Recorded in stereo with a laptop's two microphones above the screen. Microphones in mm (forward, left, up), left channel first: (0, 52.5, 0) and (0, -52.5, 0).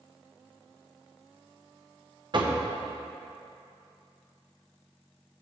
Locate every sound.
2.3 s knocking: 50° right (ahead or behind), 0.6 m